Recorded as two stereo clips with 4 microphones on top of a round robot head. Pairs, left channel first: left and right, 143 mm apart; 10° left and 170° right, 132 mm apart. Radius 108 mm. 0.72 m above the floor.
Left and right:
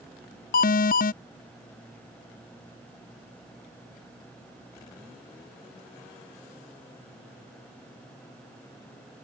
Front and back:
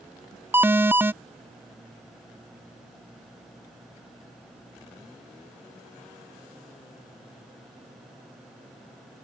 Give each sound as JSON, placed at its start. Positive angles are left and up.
{"t": 0.5, "sound": "an alarm", "azimuth_deg": 115}